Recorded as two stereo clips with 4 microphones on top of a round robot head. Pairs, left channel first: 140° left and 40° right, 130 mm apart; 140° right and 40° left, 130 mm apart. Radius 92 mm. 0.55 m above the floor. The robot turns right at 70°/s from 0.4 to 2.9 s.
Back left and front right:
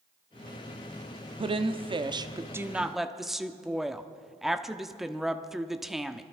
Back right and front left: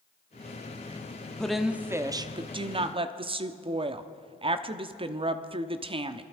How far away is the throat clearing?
I don't hear throat clearing.